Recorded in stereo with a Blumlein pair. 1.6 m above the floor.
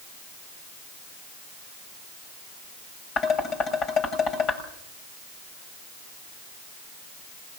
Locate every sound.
3.2 s dishes clattering: 30° left, 6.5 m